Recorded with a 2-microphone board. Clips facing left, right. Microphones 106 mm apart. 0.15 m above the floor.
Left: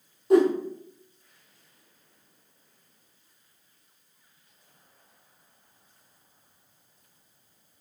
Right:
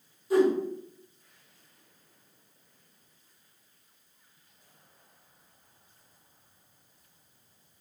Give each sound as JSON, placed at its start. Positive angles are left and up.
{"t": 0.3, "sound": "a whoosh", "side_deg": 60, "distance_m": 0.7}